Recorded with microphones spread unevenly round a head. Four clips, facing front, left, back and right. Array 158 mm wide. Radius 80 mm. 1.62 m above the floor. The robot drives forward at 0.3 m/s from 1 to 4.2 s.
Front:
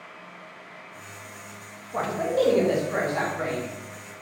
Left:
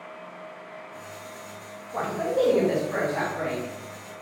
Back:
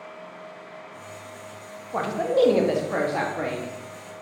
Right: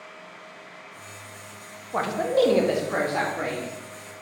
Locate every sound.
1.9 s a man speaking: 130° right, 0.6 m; by 3.7 s 160° right, 0.9 m